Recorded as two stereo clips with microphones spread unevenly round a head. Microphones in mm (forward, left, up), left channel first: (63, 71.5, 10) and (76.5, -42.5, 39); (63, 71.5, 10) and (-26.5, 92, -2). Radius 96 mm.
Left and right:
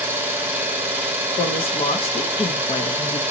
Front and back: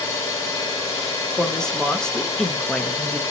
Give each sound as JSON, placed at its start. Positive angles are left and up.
{"t": 0.0, "sound": "an engine running", "azimuth_deg": -40, "distance_m": 0.8}
{"t": 1.4, "sound": "a woman speaking", "azimuth_deg": 70, "distance_m": 0.7}